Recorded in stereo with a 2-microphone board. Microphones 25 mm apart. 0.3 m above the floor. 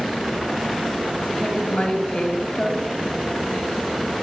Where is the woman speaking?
45° left (ahead or behind), 1.7 m.